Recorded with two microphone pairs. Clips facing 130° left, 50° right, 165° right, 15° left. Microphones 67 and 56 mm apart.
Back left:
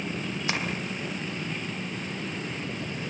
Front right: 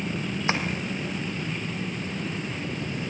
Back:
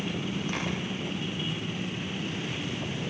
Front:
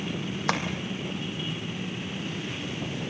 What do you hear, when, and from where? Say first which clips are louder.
0.5 s tapping: front right 4 dB, front 10 dB; 15° left, 3 m